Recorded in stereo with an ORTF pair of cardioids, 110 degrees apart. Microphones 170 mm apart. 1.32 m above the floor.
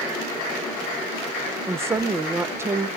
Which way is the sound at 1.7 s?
15° right.